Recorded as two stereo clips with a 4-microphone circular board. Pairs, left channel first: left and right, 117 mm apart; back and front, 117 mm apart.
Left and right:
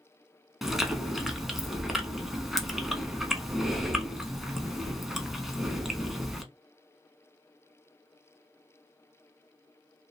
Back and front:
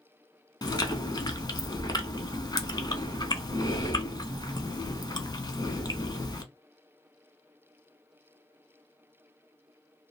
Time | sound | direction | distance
0.6 | chewing | 175° right | 0.5 m